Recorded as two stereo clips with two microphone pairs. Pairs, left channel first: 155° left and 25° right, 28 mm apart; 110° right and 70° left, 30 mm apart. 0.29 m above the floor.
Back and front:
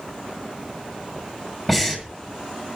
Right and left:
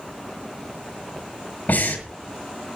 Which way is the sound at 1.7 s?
120° right.